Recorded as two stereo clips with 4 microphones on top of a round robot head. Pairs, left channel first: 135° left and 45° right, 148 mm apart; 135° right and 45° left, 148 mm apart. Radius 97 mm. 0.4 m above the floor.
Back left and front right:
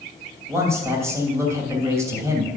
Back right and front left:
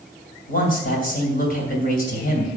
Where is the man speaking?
115° right, 2.5 m.